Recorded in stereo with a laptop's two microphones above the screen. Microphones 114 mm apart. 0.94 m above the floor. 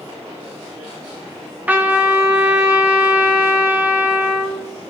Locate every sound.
1.7 s a trumpet: 15° right (ahead or behind), 1.2 m